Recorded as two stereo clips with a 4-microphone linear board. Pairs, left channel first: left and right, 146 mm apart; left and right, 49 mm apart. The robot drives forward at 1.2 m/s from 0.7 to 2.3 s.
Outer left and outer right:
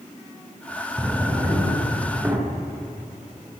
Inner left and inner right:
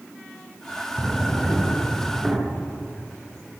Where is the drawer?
15° right (ahead or behind), 9.5 m; by 2.4 s 20° right (ahead or behind), 8 m.